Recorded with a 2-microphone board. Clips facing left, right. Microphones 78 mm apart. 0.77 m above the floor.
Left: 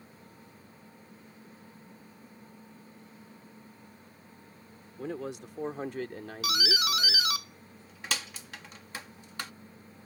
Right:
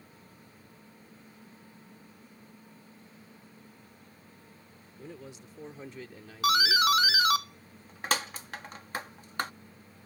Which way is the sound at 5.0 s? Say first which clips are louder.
Left 9 dB; 75° left (ahead or behind).